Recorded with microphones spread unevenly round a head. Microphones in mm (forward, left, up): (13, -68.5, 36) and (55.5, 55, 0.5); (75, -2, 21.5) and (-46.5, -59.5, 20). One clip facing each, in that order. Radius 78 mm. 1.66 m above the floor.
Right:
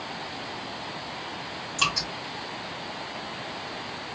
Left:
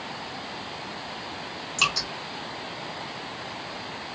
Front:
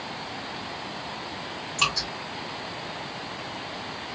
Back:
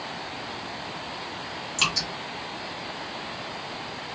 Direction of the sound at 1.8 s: 140° left.